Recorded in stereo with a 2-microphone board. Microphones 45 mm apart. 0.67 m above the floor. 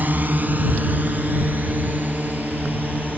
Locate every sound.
0.0 s a drone: 45° right (ahead or behind); by 3.2 s 40° right (ahead or behind)